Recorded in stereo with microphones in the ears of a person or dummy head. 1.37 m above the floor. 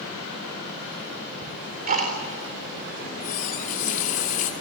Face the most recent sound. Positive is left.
turn(degrees=45)  # may be behind; listen again after turning